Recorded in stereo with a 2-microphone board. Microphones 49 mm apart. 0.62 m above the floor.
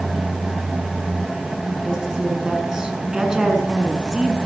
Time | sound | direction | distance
1.9 | a woman speaking | 15° right (ahead or behind) | 7 m